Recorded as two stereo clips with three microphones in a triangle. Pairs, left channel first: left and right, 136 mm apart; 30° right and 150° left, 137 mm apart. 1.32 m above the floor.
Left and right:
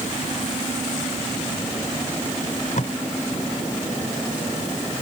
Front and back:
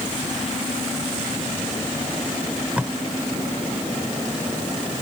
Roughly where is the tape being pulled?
Left.